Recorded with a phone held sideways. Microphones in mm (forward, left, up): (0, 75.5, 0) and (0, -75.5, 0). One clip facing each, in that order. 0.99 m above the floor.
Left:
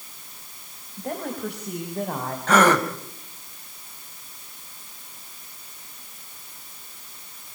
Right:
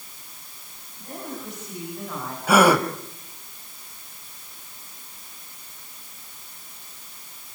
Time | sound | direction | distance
1.0 | a woman speaking | 70° left (ahead or behind) | 4.5 m
2.5 | a gasp | 10° right (ahead or behind) | 1.8 m